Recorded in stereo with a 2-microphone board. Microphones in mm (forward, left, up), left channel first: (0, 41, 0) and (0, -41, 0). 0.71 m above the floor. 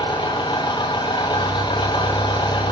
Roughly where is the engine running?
Left.